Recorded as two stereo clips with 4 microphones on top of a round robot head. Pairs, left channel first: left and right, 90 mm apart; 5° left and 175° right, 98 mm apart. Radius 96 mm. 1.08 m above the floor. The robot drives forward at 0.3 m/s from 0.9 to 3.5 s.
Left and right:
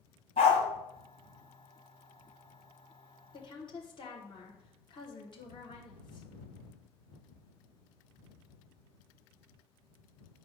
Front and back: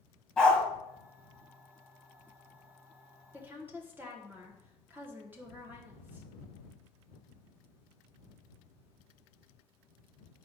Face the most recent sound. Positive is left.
turn(degrees=115)